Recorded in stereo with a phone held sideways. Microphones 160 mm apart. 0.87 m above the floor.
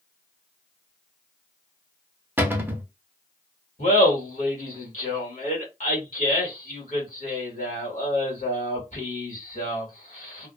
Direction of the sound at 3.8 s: 60° left (ahead or behind).